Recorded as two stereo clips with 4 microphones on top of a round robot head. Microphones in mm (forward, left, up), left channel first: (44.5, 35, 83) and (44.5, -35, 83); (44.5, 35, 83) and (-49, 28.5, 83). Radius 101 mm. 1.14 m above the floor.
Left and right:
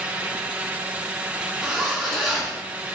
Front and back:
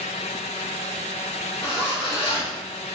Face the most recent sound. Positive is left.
turn(degrees=-10)